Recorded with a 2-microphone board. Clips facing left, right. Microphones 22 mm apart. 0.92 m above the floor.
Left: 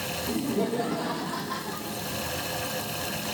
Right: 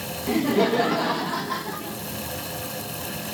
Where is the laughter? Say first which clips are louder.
Right 8 dB; 60° right (ahead or behind), 0.9 m; by 2.0 s 15° right (ahead or behind), 1.7 m.